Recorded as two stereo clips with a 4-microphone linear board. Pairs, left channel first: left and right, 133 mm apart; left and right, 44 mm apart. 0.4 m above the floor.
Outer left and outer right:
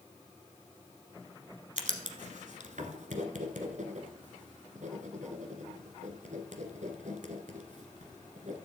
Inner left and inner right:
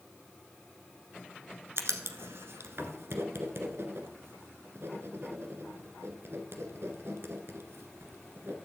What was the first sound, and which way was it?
Writing, 70° right (ahead or behind).